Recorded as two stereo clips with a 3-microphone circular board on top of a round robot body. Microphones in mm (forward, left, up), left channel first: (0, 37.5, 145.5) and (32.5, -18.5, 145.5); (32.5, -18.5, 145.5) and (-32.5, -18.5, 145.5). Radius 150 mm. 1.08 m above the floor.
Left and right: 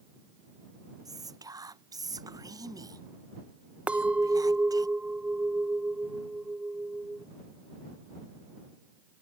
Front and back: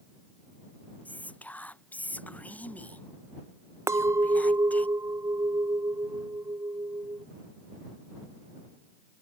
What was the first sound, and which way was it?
Whispering, 65° right.